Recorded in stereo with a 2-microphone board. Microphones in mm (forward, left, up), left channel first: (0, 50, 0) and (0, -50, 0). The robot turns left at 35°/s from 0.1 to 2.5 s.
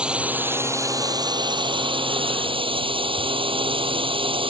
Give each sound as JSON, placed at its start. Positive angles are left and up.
{"t": 0.0, "sound": "a drone", "azimuth_deg": -10}